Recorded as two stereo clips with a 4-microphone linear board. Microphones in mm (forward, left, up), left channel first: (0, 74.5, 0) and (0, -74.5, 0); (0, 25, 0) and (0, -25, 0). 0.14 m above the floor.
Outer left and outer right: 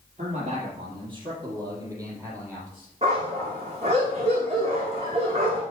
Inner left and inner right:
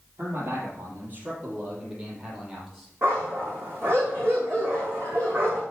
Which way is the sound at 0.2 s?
50° right (ahead or behind).